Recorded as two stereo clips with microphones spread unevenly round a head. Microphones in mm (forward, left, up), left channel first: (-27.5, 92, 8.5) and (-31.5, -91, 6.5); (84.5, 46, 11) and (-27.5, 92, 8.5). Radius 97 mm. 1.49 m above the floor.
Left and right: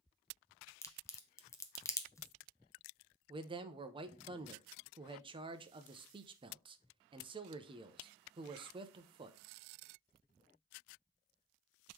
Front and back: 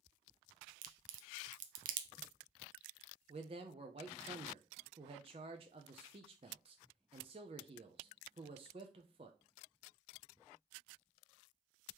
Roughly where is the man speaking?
Behind right.